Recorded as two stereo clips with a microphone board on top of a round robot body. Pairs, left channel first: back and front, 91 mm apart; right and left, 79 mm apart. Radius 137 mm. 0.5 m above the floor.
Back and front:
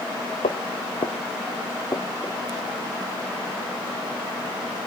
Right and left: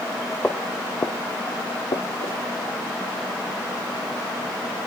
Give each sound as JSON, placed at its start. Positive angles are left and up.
{"t": 0.4, "sound": "footsteps", "azimuth_deg": -170, "distance_m": 1.1}